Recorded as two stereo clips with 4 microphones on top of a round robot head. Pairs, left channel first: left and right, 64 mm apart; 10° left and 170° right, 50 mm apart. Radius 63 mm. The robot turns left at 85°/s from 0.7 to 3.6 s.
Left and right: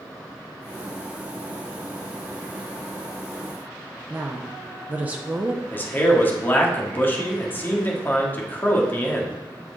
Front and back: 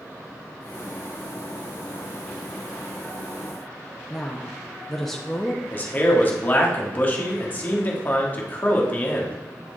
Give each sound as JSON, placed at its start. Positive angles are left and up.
{"t": 4.1, "sound": "a woman speaking", "azimuth_deg": -65, "distance_m": 0.7}
{"t": 5.7, "sound": "a man speaking", "azimuth_deg": 45, "distance_m": 1.4}